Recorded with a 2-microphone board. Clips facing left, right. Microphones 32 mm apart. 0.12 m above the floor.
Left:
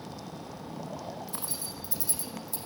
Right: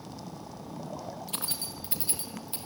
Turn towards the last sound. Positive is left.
turn(degrees=-45)  # may be behind; listen again after turning